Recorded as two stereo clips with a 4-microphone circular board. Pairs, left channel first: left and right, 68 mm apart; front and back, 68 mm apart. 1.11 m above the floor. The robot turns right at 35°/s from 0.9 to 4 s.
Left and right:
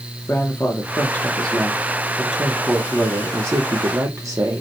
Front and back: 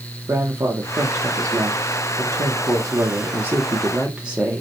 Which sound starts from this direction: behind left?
A woman speaking, at 0.3 s.